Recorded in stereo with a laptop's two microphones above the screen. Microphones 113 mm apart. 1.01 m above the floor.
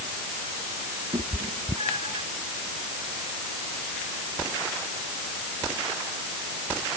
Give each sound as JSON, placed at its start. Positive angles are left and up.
{"t": 1.1, "sound": "a cat meowing", "side_deg": -55}